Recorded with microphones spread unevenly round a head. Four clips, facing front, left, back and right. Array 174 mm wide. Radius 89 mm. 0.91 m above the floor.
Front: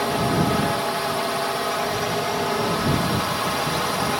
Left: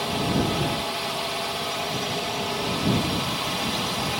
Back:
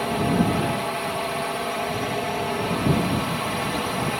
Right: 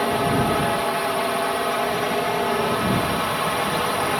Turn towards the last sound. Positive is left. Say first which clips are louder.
# right 5 dB, front 1 dB
turn(degrees=-70)